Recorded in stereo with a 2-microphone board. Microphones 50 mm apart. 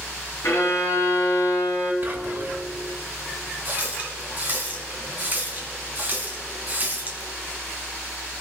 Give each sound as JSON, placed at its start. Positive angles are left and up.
{"t": 0.4, "sound": "a violin", "side_deg": 75, "distance_m": 2.0}
{"t": 2.0, "sound": "whispering", "side_deg": -40, "distance_m": 1.8}
{"t": 3.6, "sound": "a running tap", "side_deg": -35, "distance_m": 2.5}